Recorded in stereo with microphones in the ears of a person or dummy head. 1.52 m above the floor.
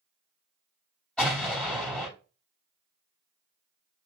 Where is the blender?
No blender in this recording.